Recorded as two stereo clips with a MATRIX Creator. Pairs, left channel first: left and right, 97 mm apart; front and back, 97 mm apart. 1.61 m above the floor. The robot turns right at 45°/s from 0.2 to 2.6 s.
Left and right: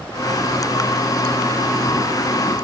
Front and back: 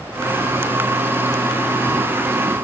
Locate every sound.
Only background noise.